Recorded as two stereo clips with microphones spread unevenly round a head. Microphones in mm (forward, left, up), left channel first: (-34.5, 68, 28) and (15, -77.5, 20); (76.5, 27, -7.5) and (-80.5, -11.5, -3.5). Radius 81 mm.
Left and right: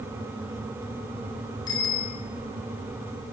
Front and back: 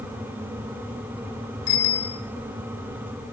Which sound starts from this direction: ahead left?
A bicycle bell, at 1.7 s.